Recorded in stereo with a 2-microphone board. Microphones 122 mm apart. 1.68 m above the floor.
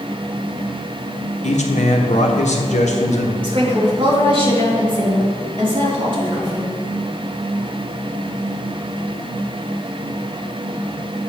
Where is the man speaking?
70° left (ahead or behind), 1.3 m.